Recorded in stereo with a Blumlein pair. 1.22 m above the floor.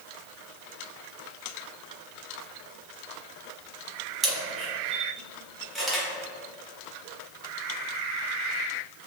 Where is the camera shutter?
15° right, 1.7 m.